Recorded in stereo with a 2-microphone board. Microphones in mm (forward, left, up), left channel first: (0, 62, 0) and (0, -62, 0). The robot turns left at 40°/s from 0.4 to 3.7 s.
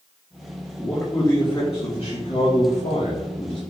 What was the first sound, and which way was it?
A man speaking, straight behind.